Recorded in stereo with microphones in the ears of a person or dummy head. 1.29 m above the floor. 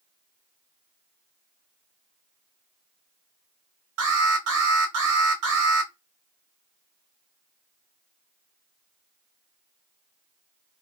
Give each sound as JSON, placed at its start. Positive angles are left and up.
{"t": 4.0, "sound": "an alarm", "side_deg": -70, "distance_m": 1.5}